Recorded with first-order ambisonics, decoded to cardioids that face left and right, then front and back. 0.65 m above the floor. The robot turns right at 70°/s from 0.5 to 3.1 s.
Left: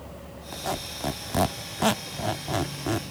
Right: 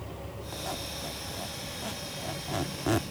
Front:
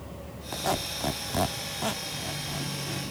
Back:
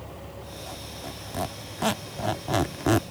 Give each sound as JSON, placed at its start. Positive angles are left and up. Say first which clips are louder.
{"t": 0.5, "sound": "a squeak", "louder": "left 5 dB, front 13 dB", "azimuth_deg": 15}